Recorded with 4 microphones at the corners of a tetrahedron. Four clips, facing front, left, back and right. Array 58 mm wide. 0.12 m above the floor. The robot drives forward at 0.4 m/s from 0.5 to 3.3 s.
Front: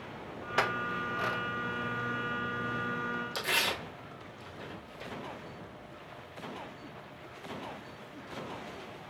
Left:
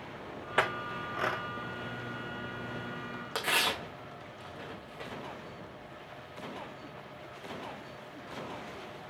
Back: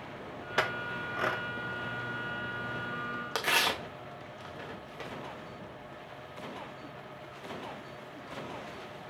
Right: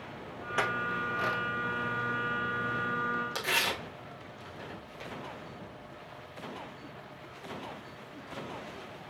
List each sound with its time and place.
0.6 s a clink: 85° left, 0.7 m; by 1.4 s 145° left, 0.8 m
3.4 s tearing paper: 165° left, 2.5 m